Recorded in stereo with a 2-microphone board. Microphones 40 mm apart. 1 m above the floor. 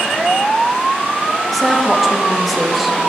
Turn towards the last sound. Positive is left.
turn(degrees=0)  # may be behind; listen again after turning